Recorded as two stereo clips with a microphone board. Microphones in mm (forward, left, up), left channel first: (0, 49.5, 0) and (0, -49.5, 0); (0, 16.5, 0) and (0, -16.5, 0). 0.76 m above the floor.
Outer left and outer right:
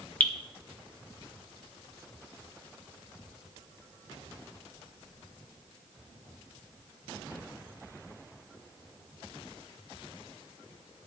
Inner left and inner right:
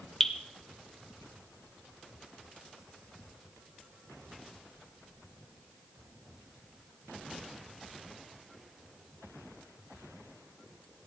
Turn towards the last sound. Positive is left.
turn(degrees=15)  # may be behind; listen again after turning